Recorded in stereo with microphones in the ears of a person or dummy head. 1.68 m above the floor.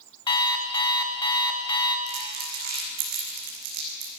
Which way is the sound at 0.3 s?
30° left (ahead or behind).